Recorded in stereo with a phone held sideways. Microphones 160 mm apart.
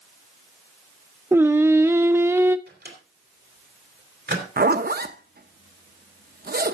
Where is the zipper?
65° right (ahead or behind), 0.8 m.